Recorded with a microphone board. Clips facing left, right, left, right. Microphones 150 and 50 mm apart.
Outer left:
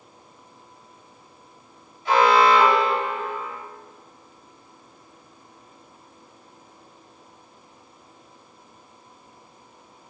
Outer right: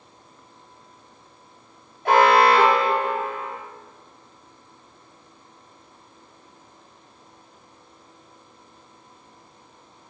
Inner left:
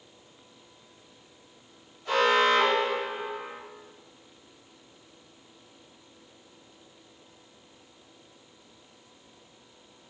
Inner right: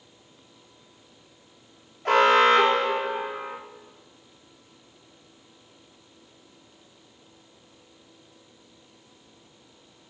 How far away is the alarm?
About 3.5 m.